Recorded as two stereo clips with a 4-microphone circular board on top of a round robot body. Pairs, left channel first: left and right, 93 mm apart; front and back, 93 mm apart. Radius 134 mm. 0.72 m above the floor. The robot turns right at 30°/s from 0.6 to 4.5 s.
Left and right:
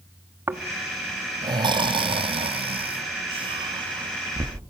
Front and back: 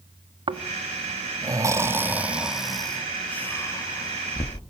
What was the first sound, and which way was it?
Snoring, 155° right.